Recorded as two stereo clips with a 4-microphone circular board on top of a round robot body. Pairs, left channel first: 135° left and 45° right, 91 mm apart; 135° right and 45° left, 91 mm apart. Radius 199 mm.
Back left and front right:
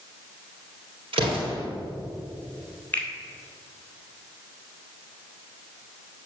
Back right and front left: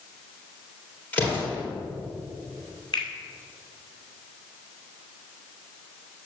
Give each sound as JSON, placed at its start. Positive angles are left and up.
{"t": 1.1, "sound": "an explosion", "azimuth_deg": -60, "distance_m": 3.0}
{"t": 2.9, "sound": "a finger snap", "azimuth_deg": -155, "distance_m": 2.0}